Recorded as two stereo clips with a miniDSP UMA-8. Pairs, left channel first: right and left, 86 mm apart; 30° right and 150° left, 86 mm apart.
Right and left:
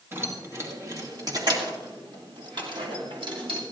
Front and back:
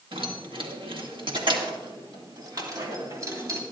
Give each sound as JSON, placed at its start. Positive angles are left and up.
{"t": 0.1, "sound": "keys jangling", "azimuth_deg": 155, "distance_m": 2.0}